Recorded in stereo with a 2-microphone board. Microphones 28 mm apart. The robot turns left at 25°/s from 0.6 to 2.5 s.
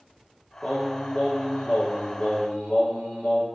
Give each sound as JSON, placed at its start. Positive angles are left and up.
{"t": 0.6, "sound": "singing", "azimuth_deg": 150, "distance_m": 1.0}